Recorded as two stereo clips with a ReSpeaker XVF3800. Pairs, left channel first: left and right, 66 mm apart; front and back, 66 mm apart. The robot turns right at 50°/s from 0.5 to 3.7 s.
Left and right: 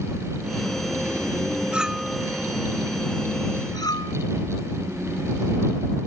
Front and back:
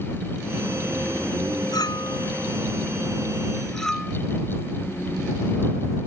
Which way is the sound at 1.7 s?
15° right.